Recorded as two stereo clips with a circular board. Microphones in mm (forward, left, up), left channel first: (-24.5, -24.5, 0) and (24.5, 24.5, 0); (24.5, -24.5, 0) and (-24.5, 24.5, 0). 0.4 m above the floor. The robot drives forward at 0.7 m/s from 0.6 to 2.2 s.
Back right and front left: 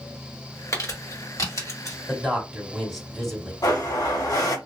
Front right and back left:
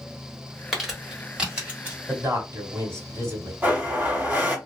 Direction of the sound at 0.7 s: 140° right.